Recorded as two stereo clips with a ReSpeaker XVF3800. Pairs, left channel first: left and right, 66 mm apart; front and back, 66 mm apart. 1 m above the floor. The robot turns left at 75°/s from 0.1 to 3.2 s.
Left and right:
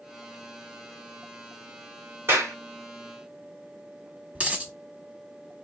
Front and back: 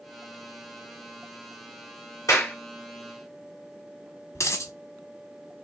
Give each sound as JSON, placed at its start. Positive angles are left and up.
{"t": 2.3, "sound": "a clap", "azimuth_deg": -40, "distance_m": 3.0}
{"t": 4.3, "sound": "a dropped coin", "azimuth_deg": -25, "distance_m": 1.3}